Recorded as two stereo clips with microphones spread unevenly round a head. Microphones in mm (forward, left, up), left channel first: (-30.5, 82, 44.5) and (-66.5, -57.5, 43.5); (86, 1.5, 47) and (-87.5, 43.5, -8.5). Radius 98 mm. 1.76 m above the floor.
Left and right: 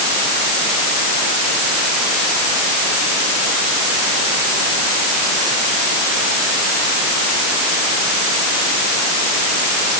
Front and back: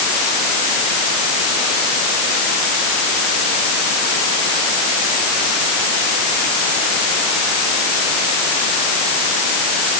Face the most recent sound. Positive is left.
No sound to turn to.